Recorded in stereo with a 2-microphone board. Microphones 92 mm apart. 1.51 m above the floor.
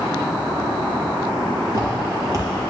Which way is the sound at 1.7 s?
40° right (ahead or behind).